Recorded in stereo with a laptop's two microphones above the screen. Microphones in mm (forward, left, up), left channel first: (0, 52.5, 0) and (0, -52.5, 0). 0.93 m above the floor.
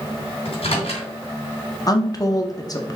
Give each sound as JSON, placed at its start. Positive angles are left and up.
{"t": 0.5, "sound": "a microwave", "side_deg": 70, "distance_m": 2.5}
{"t": 1.9, "sound": "a woman speaking", "side_deg": 35, "distance_m": 0.6}